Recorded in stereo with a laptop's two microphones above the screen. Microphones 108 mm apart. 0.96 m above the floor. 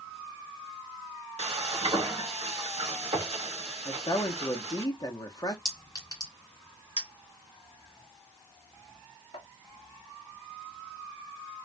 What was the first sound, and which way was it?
Frying, 80° right.